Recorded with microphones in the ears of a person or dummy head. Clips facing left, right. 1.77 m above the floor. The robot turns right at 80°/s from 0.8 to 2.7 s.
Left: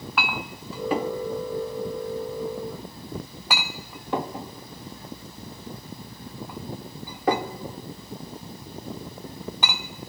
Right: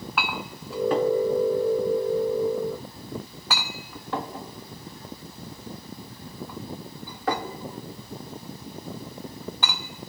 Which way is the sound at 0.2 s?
Centre (ahead or behind).